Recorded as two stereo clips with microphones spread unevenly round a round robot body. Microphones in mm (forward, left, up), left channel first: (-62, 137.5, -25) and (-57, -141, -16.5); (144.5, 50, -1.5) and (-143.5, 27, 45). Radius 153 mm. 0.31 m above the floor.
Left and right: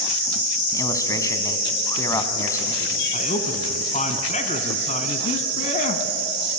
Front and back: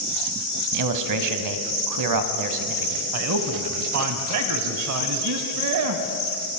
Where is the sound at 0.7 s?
170° left, 2.5 m.